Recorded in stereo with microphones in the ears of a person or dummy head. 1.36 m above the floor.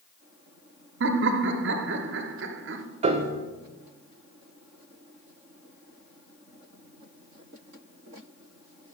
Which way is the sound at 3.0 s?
35° right (ahead or behind).